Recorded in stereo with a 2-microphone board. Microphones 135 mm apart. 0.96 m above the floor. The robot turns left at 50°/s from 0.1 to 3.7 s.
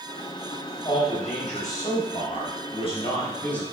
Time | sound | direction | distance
0.8 | a man speaking | 145° left | 4 m